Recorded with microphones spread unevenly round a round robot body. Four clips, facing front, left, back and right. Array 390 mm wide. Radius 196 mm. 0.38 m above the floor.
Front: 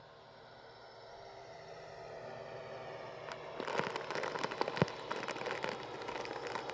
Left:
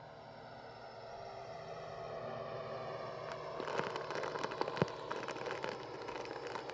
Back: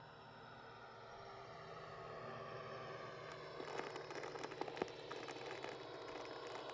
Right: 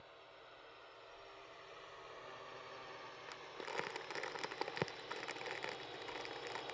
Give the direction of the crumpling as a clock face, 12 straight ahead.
11 o'clock.